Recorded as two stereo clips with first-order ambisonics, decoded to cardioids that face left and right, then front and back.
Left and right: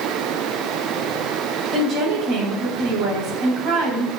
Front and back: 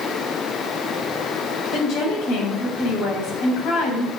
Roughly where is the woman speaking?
Ahead right.